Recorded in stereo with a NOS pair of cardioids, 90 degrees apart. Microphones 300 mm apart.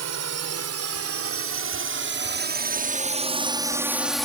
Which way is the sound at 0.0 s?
65° right.